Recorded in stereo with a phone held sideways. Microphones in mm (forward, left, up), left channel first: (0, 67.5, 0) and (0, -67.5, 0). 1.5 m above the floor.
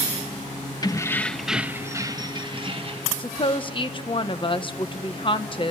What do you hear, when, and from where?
0.8 s keys jangling: 30° left (ahead or behind), 0.8 m; by 3.1 s 45° right (ahead or behind), 1.6 m
3.2 s a woman speaking: 40° left (ahead or behind), 1.3 m